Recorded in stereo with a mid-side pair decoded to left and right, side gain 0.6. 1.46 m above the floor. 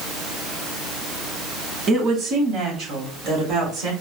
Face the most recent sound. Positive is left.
turn(degrees=-65)